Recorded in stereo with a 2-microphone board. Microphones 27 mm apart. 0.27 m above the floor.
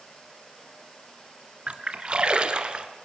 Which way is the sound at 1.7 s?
40° right (ahead or behind).